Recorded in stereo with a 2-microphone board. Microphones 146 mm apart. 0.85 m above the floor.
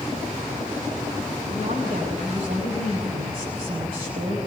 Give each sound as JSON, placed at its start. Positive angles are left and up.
{"t": 1.5, "sound": "a woman speaking", "side_deg": -85, "distance_m": 5.0}